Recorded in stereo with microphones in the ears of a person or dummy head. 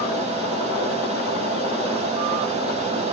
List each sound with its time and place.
0.0 s a fan: 25° right (ahead or behind), 1.4 m